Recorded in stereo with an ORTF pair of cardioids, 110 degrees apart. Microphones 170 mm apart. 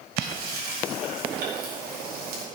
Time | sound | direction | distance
0.2 | frying | 65° right | 4.5 m